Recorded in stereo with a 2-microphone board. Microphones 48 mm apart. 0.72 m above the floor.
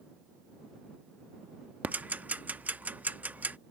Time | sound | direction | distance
1.8 | ticking | 35° right (ahead or behind) | ?